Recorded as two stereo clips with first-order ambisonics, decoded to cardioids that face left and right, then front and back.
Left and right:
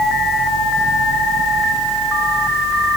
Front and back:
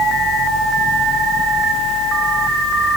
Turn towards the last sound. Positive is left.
No sound to turn to.